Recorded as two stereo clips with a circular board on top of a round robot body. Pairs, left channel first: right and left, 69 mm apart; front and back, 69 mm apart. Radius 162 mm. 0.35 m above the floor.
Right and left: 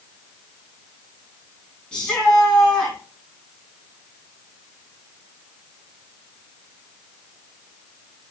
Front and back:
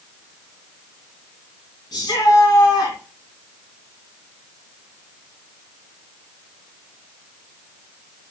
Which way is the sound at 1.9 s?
10° right.